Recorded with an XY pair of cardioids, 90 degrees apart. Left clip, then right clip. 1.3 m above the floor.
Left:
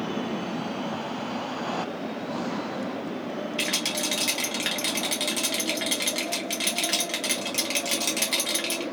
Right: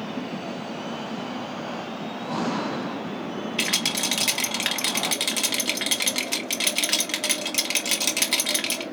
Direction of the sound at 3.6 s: 45° right.